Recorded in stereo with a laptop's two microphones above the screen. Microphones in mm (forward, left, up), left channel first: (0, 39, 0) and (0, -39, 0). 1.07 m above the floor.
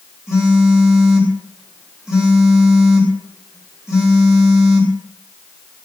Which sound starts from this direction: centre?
A phone buzzing, at 0.3 s.